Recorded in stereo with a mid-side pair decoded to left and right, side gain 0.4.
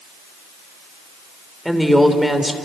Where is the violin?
I don't hear a violin.